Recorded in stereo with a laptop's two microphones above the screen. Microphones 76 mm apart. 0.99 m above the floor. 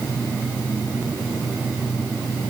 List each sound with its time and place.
Only background noise.